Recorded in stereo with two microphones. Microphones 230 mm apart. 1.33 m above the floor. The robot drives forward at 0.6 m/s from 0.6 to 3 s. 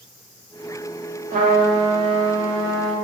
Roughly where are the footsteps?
No footsteps in this recording.